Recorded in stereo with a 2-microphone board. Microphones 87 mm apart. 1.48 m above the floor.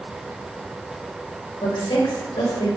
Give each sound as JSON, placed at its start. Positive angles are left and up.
{"t": 1.6, "sound": "a woman speaking", "side_deg": 65, "distance_m": 0.8}